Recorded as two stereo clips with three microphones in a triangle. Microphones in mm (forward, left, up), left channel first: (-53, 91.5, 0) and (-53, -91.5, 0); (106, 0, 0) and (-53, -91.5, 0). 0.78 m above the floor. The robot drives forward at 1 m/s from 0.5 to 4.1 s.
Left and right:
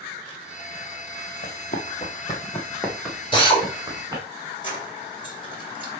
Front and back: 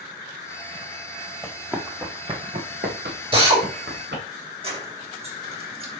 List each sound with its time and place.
1.4 s running footsteps: 115° left, 2 m; by 4.2 s 160° right, 4.5 m
3.3 s a drill: 150° left, 3.5 m; by 3.6 s 155° left, 4 m
4.6 s keys jangling: 155° left, 3.5 m